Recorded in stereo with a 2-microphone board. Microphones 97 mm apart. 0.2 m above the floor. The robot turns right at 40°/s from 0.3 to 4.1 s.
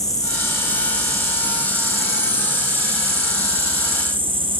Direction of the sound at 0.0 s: 145° left.